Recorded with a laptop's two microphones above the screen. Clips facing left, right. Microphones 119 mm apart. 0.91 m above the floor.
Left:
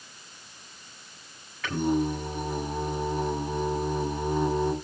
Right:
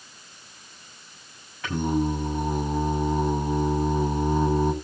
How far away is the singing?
About 6.5 m.